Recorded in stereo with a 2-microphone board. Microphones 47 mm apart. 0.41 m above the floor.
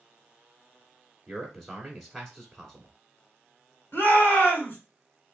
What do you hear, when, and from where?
1.3 s a man speaking: centre (ahead or behind), 1.5 m
3.9 s a shout: 45° left (ahead or behind), 3 m